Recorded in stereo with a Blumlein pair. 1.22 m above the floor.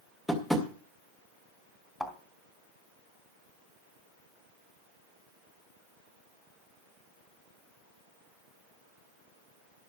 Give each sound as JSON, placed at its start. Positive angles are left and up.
{"t": 0.3, "sound": "tapping", "azimuth_deg": 5, "distance_m": 2.0}
{"t": 2.0, "sound": "a thud", "azimuth_deg": 5, "distance_m": 2.5}